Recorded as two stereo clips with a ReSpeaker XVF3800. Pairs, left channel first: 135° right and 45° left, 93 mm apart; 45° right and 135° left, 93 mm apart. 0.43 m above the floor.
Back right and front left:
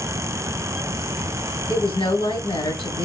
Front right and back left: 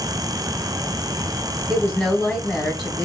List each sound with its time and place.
1.7 s a woman speaking: 130° right, 2.5 m